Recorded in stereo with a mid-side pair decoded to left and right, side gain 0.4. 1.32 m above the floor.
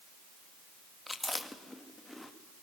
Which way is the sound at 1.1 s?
15° left.